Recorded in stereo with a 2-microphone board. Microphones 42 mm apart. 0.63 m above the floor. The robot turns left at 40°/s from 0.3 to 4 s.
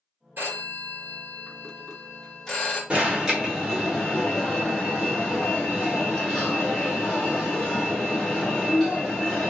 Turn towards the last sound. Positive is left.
turn(degrees=165)